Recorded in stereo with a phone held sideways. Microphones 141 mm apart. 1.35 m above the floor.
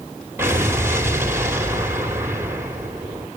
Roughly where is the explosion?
Centre.